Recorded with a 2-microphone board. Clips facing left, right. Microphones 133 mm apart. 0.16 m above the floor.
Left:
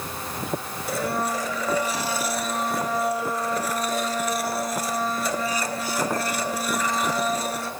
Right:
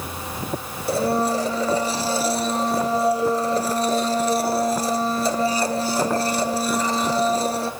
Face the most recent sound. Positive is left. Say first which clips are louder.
# right 6 dB
turn(degrees=-30)  # may be behind; listen again after turning